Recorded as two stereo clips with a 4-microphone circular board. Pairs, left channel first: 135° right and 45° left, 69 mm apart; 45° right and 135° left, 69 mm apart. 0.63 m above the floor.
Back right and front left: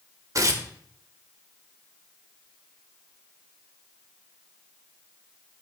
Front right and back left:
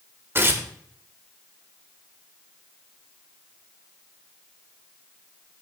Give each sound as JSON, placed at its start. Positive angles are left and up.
{"t": 0.3, "sound": "tearing paper", "azimuth_deg": 80, "distance_m": 1.8}